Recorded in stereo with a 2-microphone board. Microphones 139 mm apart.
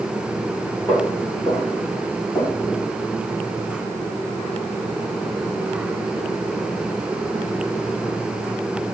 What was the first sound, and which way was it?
Footsteps, 20° left (ahead or behind).